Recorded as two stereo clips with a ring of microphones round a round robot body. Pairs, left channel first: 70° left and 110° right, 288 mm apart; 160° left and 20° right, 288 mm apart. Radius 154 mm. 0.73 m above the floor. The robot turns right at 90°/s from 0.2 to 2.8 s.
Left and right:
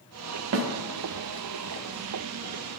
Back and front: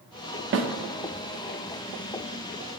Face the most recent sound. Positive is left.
turn(degrees=130)